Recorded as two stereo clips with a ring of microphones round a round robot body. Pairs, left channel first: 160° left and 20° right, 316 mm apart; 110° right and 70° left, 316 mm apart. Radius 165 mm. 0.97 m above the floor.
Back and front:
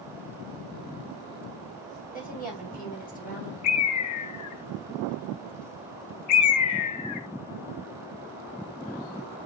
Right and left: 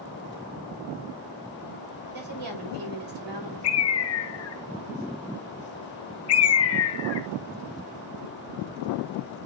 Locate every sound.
2.1 s a woman speaking: 90° left, 5 m
3.6 s a bird: 160° right, 1.0 m